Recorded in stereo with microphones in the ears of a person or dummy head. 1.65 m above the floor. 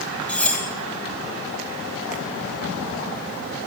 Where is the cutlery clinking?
10° left (ahead or behind), 4 m.